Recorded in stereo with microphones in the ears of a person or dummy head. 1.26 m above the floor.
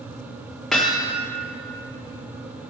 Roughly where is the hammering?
Centre.